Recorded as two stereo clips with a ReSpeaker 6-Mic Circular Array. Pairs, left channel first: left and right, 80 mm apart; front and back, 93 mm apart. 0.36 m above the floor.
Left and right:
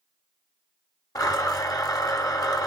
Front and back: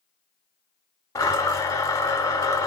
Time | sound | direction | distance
1.1 | a blender | 50° left | 1.0 m